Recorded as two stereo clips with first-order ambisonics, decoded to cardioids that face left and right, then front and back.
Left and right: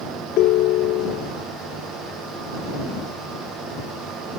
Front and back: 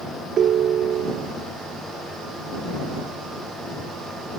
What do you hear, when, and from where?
0.4 s a ringtone: 125° left